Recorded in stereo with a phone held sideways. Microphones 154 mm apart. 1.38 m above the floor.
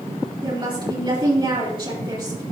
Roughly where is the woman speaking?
Right.